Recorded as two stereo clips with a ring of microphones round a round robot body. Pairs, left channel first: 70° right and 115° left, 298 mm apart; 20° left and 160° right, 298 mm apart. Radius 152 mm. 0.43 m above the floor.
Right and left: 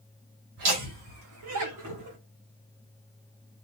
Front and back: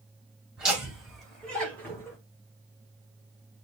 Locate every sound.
0.6 s laughter: 115° left, 3 m; by 2.2 s 100° left, 2 m